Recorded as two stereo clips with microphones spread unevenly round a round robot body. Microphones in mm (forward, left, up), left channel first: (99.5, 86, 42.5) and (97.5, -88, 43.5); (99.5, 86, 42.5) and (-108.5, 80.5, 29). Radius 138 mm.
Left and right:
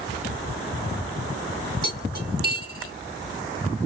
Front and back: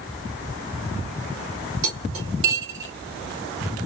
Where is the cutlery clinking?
160° right, 2 m.